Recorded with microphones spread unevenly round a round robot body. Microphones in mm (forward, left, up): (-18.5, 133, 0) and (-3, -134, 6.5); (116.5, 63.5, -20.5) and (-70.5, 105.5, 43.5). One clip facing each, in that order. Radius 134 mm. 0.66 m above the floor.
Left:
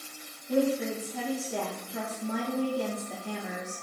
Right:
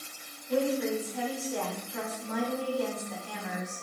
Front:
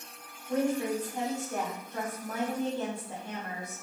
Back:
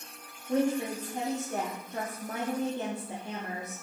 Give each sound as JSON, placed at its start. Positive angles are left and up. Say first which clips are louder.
{"t": 0.5, "sound": "a woman speaking", "louder": "left 1 dB, back 1 dB", "azimuth_deg": 85, "distance_m": 0.8}